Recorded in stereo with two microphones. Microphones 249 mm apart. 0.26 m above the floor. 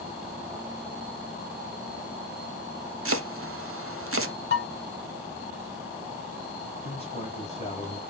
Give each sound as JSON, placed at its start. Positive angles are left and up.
{"t": 3.0, "sound": "chopping", "side_deg": -55, "distance_m": 0.5}
{"t": 4.5, "sound": "dishes clattering", "side_deg": 40, "distance_m": 1.9}
{"t": 6.8, "sound": "a man speaking", "side_deg": 25, "distance_m": 1.9}